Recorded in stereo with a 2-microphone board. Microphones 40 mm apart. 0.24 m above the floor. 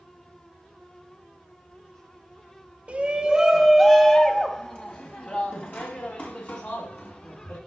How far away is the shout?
About 1.2 m.